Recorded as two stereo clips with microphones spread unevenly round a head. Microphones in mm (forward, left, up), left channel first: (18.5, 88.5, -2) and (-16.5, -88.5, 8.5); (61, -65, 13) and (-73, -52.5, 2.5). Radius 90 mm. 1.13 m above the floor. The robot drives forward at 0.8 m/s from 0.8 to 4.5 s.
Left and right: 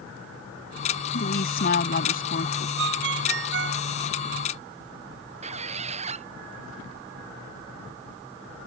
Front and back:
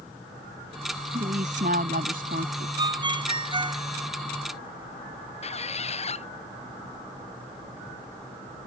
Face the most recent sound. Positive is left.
turn(degrees=-45)